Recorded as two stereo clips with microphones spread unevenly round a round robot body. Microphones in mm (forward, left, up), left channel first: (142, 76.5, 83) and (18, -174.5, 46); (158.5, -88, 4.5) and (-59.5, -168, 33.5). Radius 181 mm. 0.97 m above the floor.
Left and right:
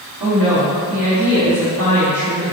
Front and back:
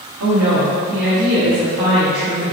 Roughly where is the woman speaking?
Behind.